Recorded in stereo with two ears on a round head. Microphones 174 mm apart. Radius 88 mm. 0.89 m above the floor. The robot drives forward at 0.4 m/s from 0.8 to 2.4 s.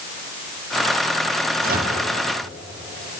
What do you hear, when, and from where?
1.6 s a microwave: 50° right (ahead or behind), 1.2 m; by 2.0 s 45° right (ahead or behind), 1.3 m